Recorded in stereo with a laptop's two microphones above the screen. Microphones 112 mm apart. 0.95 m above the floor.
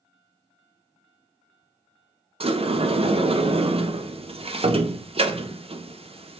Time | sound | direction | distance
2.4 | a sliding door | 60° right (ahead or behind) | 0.5 m